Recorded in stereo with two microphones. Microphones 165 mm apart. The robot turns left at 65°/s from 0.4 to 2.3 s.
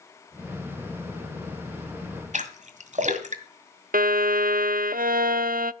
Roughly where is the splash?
Right.